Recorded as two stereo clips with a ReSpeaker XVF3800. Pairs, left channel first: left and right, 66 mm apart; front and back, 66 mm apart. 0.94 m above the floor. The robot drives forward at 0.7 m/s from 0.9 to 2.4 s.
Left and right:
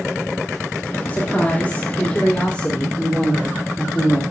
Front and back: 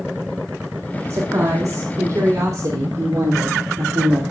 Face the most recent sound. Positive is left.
turn(degrees=160)